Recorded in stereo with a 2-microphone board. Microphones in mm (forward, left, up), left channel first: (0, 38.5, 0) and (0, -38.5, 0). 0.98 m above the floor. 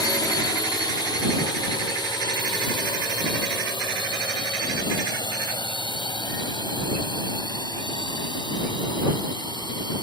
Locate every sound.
0.0 s a drone: 65° left (ahead or behind)